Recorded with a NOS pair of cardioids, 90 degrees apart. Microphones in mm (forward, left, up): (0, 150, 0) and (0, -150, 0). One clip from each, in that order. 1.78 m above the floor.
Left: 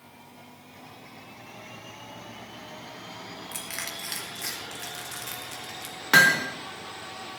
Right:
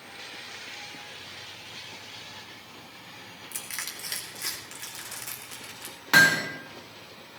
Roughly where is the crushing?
Ahead.